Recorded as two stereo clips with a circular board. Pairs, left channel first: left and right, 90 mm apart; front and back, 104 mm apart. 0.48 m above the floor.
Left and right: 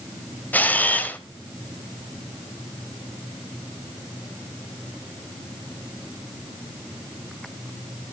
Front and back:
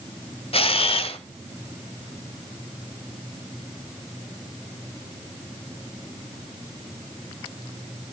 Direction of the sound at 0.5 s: 20° left.